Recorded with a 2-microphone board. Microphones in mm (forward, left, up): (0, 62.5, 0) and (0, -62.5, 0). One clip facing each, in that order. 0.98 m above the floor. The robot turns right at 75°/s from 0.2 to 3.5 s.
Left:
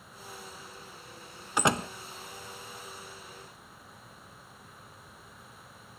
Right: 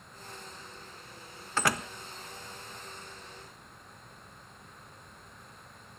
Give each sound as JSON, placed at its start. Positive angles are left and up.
{"t": 1.6, "sound": "a door slam", "side_deg": 15, "distance_m": 0.5}